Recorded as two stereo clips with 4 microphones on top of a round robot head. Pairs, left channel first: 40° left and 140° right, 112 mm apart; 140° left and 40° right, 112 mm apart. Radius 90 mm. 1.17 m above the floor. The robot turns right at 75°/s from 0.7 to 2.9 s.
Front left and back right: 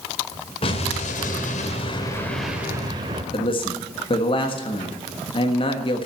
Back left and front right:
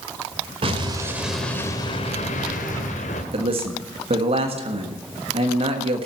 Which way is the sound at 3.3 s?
5° right.